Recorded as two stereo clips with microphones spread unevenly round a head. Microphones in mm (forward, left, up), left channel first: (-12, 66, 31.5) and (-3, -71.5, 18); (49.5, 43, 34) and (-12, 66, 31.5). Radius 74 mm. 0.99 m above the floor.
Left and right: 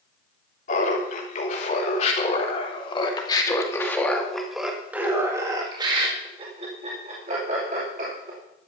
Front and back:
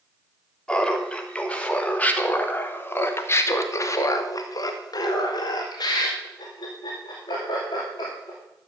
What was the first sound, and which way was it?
Laughter, 60° left.